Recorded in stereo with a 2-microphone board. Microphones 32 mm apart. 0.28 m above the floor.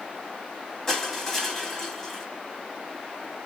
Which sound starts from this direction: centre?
Crushing, at 0.9 s.